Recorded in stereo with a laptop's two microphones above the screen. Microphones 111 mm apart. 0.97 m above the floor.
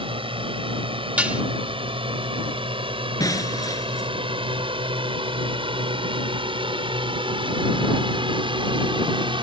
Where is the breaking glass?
30° left (ahead or behind).